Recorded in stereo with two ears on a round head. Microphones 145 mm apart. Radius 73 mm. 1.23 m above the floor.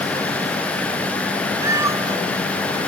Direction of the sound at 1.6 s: 20° right (ahead or behind).